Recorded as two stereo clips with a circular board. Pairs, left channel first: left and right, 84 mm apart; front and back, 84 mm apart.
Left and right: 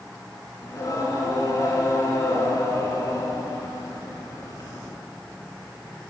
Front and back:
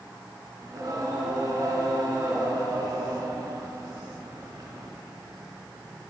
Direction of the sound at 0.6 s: 135° left.